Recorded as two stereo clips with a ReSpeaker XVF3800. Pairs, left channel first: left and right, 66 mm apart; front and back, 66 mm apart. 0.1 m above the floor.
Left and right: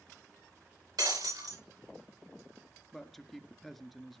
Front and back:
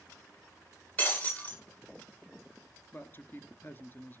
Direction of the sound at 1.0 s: 70° right.